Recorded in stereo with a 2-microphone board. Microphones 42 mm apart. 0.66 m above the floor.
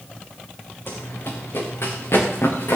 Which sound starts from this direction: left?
Running footsteps, at 0.9 s.